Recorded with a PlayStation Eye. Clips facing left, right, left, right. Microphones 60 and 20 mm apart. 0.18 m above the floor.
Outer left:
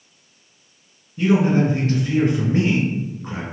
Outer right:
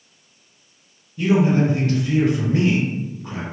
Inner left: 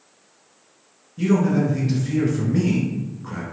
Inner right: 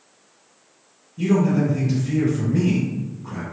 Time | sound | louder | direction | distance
1.2 | a man speaking | even, even | 30° left (ahead or behind) | 1.7 m